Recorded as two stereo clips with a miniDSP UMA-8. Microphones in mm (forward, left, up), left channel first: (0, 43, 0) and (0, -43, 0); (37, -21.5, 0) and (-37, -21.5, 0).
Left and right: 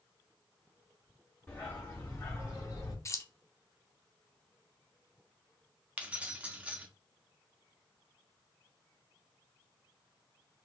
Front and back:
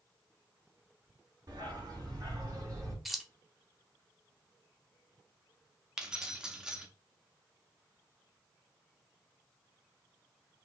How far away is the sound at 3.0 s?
About 0.6 m.